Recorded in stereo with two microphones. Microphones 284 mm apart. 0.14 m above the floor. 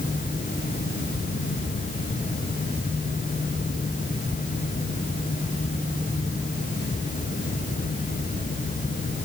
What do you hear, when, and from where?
Only background noise.